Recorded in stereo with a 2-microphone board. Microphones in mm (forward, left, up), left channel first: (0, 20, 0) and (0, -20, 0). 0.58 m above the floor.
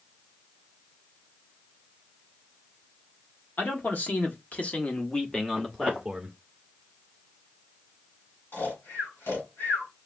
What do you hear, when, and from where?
3.6 s a man speaking: 45° left (ahead or behind), 1.3 m; by 6.4 s 10° right (ahead or behind), 1.0 m
5.6 s footsteps: 40° left (ahead or behind), 2.5 m
8.5 s snoring: 65° left (ahead or behind), 3 m